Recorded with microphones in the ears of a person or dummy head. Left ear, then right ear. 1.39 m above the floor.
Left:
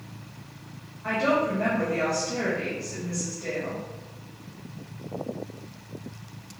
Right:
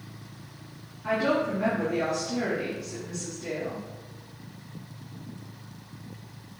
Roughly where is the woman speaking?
Left.